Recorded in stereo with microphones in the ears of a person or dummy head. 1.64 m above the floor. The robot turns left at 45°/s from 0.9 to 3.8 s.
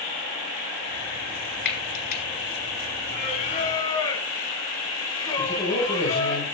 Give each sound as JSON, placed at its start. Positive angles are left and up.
{"t": 1.6, "sound": "frying", "side_deg": 65, "distance_m": 5.5}
{"t": 3.1, "sound": "singing", "azimuth_deg": 65, "distance_m": 2.5}
{"t": 5.4, "sound": "a man speaking", "side_deg": 15, "distance_m": 7.5}